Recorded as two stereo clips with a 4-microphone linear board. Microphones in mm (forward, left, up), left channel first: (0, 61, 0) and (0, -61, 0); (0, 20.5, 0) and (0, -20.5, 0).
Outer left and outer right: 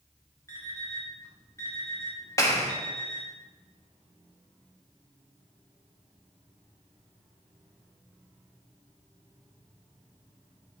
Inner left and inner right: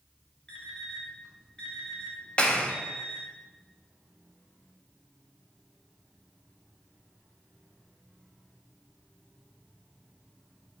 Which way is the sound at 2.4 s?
25° left (ahead or behind).